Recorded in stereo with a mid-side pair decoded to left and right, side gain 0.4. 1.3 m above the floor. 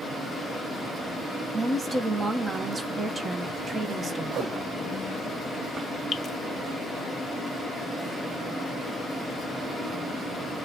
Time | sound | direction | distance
1.5 | a woman speaking | 40° right | 1.2 m
4.3 | a whoosh | 60° right | 0.5 m
6.1 | dripping | 45° left | 0.5 m